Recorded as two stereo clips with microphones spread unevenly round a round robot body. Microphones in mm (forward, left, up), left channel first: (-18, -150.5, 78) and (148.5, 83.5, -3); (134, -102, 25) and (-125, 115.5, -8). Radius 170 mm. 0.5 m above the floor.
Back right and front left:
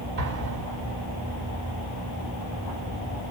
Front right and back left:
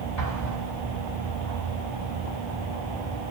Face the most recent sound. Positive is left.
turn(degrees=10)